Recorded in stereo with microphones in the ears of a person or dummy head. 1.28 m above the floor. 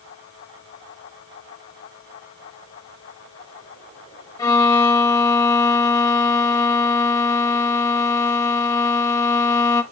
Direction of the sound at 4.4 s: 15° left (ahead or behind).